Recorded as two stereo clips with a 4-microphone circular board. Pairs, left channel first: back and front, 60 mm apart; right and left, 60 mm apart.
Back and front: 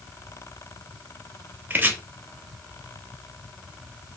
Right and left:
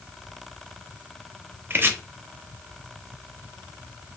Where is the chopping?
50° left, 0.5 m.